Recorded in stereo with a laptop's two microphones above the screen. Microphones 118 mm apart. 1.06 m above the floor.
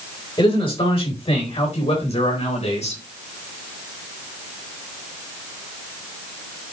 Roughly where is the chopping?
I don't hear chopping.